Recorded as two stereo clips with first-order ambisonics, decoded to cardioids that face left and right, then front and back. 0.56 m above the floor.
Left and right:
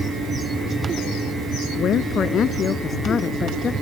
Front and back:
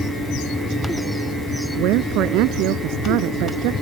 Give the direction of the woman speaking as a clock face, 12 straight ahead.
7 o'clock.